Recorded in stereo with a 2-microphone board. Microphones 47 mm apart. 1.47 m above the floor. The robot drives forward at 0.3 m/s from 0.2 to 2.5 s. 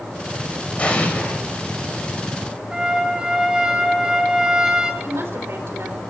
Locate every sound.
0.8 s an explosion: 30° left (ahead or behind), 5 m
2.7 s a trumpet: 15° right (ahead or behind), 8.5 m
5.0 s a woman speaking: 65° right (ahead or behind), 4 m